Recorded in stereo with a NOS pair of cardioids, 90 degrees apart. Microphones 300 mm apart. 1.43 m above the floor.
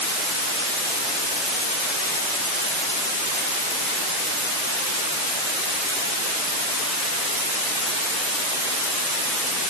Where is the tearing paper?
No tearing paper in this recording.